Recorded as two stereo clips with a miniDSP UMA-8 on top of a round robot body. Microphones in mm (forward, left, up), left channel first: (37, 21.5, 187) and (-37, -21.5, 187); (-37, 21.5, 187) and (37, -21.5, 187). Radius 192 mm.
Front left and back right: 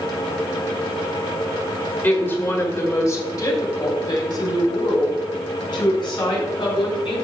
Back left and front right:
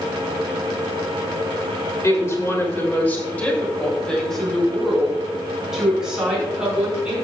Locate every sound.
2.0 s a woman speaking: 100° left, 2.5 m; by 7.2 s 45° left, 5 m